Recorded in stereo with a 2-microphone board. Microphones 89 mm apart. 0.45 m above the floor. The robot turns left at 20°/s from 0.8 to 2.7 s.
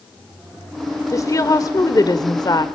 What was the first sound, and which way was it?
A woman speaking, 130° left.